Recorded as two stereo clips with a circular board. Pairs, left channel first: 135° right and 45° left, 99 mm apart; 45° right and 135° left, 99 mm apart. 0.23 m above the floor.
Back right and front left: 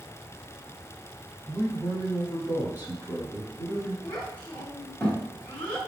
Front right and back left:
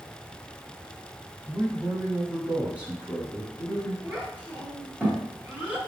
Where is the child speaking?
175° left, 1.0 m.